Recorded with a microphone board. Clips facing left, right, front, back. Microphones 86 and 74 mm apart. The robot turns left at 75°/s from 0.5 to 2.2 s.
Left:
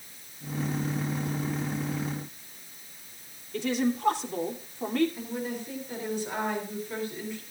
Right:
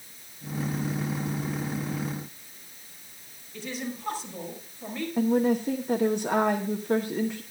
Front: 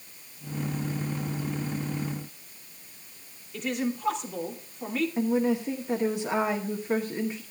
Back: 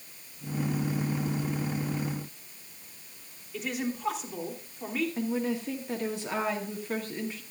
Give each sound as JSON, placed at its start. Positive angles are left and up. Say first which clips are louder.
{"t": 3.5, "sound": "a woman speaking", "louder": "left 8 dB, front 3 dB", "azimuth_deg": 95, "distance_m": 3.0}
{"t": 5.2, "sound": "a woman speaking", "louder": "right 11 dB, front 5 dB", "azimuth_deg": -70, "distance_m": 1.0}